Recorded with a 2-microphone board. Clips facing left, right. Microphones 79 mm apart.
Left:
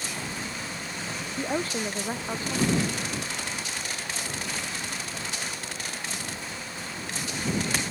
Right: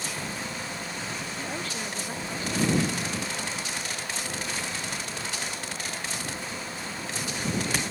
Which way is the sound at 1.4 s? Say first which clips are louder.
Left 9 dB; 35° left (ahead or behind).